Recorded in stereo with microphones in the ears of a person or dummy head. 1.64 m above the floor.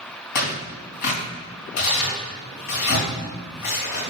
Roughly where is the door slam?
I don't hear a door slam.